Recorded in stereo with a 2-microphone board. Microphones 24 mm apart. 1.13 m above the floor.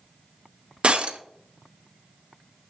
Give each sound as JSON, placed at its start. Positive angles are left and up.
{"t": 0.8, "sound": "breaking glass", "side_deg": -55, "distance_m": 0.9}